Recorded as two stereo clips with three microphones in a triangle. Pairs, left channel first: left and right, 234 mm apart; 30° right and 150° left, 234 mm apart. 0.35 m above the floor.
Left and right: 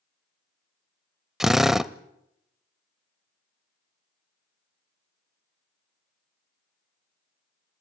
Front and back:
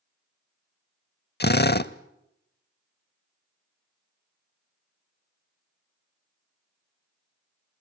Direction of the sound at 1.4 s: Straight ahead.